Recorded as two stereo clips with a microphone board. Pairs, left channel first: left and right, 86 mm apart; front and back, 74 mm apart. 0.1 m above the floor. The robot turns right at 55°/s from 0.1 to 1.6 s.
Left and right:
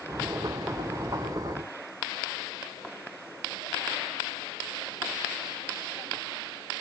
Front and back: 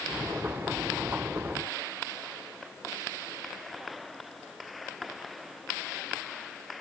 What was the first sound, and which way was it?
Only background noise.